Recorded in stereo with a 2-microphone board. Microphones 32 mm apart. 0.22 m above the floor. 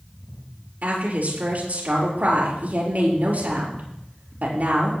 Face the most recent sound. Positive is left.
turn(degrees=-50)  # may be behind; listen again after turning